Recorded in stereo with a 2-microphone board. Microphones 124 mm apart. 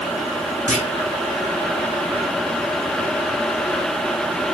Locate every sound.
0.7 s a clunk: 75° left (ahead or behind), 2.5 m